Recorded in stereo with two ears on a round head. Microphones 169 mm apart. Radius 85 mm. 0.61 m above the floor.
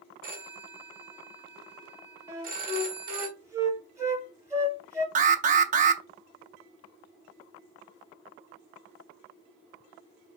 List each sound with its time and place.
0.2 s a phone ringing: 50° right (ahead or behind), 1.1 m
2.3 s a flute: 15° right (ahead or behind), 1.6 m
5.2 s an alarm: 40° right (ahead or behind), 0.6 m